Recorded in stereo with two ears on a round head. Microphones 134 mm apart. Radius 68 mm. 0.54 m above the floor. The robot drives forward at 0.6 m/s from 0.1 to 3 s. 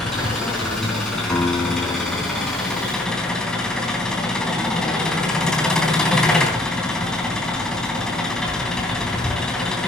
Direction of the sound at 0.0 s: 5° left (ahead or behind).